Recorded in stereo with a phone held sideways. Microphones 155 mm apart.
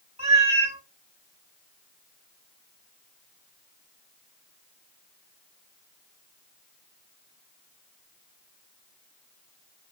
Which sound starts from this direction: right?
A cat meowing, at 0.2 s.